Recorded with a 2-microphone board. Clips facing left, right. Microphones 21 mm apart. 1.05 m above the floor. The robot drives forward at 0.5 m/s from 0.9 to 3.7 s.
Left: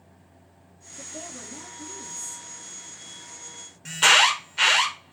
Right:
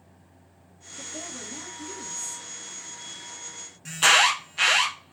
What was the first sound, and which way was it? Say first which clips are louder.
A woman speaking: right 2 dB; 20° right (ahead or behind).